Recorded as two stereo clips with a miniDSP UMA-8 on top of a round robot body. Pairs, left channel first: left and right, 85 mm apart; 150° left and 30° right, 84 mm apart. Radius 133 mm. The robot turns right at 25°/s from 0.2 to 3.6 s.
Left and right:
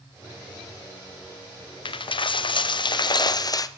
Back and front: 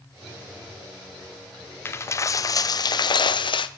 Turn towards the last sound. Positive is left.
turn(degrees=130)